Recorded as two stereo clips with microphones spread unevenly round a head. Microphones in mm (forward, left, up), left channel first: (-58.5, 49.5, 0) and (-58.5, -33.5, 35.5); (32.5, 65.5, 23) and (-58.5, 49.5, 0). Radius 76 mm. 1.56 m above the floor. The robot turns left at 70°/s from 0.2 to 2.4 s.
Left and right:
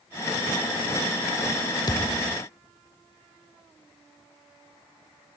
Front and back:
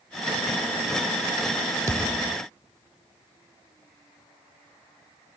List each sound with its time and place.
1.9 s a thud: 135° left; by 2.4 s 100° left